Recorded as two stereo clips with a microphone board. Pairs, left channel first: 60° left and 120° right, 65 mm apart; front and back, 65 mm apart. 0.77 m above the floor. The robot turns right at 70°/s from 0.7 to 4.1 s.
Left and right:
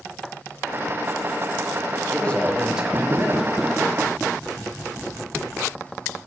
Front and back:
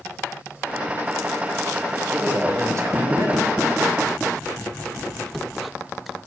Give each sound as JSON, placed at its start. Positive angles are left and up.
{"t": 2.1, "sound": "a man speaking", "azimuth_deg": 120, "distance_m": 0.6}